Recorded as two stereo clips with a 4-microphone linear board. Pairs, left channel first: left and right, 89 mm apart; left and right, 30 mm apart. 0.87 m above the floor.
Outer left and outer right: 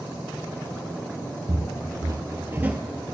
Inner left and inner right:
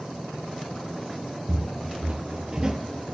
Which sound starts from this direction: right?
Footsteps, at 1.5 s.